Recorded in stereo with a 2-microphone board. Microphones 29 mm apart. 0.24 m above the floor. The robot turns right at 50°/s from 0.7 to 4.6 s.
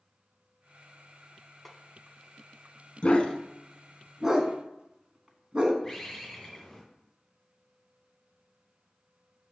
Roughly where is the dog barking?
Left.